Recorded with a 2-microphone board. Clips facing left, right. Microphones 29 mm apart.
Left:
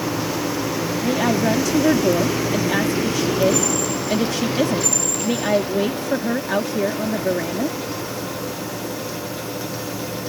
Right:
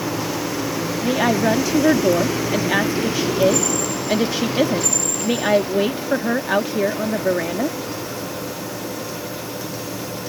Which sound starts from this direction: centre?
A woman speaking, at 1.0 s.